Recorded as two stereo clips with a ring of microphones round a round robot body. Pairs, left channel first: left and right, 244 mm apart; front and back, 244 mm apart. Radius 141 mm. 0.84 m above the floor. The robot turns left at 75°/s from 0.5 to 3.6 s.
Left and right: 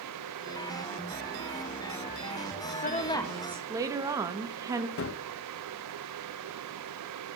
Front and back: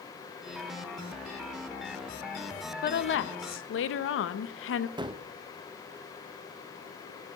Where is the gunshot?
110° left, 0.6 m.